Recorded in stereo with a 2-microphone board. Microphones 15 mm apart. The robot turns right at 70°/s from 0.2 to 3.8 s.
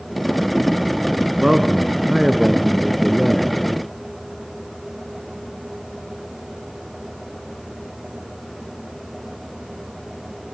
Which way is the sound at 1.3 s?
100° right.